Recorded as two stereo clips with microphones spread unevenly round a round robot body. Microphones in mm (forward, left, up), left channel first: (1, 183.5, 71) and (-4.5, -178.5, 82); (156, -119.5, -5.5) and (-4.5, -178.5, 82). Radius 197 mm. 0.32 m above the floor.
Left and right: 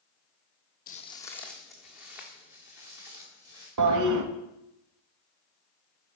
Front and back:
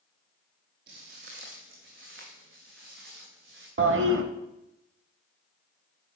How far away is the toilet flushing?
About 0.9 m.